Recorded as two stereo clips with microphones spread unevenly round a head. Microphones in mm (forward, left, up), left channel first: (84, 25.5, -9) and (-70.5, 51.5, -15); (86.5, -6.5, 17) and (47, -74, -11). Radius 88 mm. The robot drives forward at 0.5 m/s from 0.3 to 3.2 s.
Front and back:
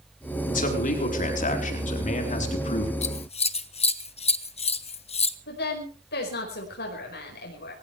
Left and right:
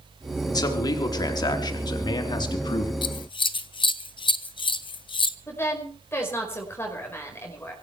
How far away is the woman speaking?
About 5.5 m.